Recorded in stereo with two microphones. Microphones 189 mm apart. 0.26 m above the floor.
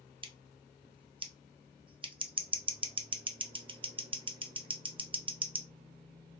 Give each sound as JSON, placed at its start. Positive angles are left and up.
{"t": 0.2, "sound": "scissors", "side_deg": -30, "distance_m": 0.5}